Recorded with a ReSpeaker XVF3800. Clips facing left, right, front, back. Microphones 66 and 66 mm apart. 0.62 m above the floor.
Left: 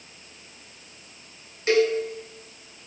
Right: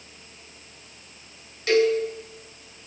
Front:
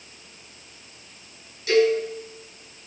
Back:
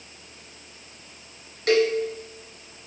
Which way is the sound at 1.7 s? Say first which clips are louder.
Right 1 dB, front 2 dB; 155° left.